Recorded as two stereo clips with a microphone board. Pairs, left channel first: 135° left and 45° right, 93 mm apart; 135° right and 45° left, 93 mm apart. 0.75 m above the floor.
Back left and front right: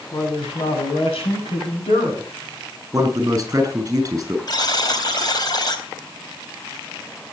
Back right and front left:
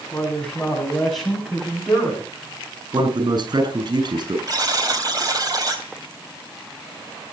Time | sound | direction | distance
0.1 | a man speaking | 145° left | 7 m
2.9 | a man speaking | 10° left | 6 m
4.5 | a buzzer | 90° left | 3.5 m